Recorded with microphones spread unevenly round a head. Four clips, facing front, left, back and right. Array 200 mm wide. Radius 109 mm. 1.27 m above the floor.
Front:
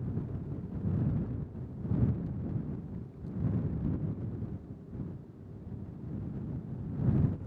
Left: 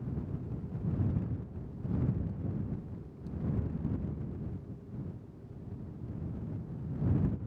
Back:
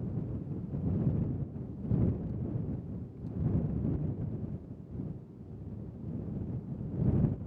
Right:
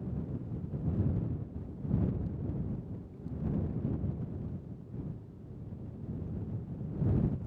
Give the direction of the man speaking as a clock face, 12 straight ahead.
I don't hear a man speaking.